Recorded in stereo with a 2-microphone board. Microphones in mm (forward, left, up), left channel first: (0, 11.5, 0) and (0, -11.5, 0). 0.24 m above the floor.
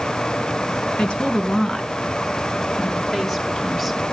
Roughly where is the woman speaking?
Left.